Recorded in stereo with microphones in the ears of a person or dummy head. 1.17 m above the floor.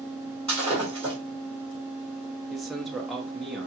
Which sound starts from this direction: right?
Breaking glass, at 0.5 s.